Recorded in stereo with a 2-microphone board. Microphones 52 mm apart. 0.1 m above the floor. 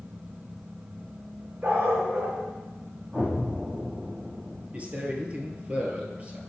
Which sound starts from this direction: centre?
An explosion, at 3.1 s.